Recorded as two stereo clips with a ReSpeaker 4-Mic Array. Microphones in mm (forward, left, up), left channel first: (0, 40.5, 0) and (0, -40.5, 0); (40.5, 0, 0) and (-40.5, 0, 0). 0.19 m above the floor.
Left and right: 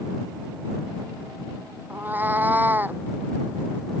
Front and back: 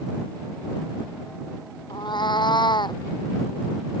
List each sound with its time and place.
1.9 s a cat meowing: 25° right